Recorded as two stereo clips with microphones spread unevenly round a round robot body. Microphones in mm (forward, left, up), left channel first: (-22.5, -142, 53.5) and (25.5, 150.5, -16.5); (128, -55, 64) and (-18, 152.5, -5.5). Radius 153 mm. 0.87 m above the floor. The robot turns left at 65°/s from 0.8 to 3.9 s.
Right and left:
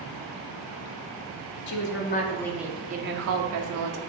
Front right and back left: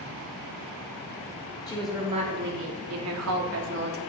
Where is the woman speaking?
135° right, 1.4 m; by 4.0 s 80° left, 1.4 m.